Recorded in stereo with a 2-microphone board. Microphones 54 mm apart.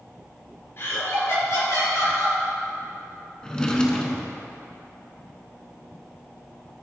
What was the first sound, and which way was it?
Laughter, 50° left (ahead or behind).